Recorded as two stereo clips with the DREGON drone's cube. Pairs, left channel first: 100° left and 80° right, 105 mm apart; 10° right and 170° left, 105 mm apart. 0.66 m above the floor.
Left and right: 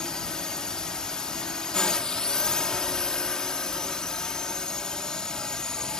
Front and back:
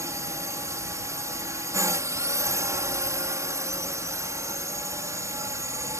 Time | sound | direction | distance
0.0 | a drone | 175° left | ?